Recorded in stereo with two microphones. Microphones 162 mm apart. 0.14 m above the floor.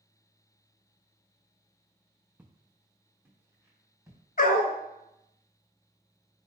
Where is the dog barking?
60° left (ahead or behind), 0.5 m.